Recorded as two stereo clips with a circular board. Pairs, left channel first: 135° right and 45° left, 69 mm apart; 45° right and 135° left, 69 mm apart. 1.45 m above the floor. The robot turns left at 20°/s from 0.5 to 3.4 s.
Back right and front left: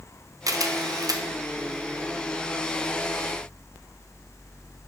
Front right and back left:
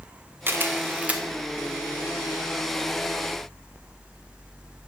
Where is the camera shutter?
75° left, 0.5 m; by 1.2 s 60° left, 0.5 m.